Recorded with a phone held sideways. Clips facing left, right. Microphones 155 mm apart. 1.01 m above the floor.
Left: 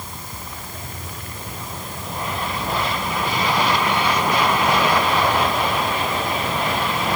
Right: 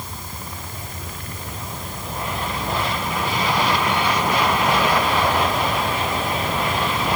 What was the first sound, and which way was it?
Only background noise.